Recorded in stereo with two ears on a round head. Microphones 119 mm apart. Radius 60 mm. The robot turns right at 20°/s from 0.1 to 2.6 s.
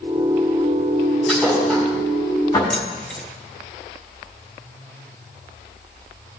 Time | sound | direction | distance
1.3 | a thud | 5° left (ahead or behind) | 4.5 m
2.7 | keys jangling | 5° left (ahead or behind) | 0.9 m